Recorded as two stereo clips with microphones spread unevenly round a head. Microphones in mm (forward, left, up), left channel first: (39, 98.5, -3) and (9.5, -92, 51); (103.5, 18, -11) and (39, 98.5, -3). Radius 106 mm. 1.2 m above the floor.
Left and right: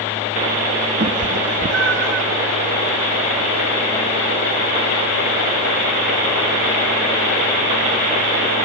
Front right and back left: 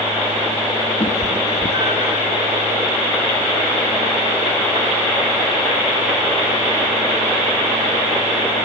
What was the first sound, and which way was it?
A cat meowing, 90° right.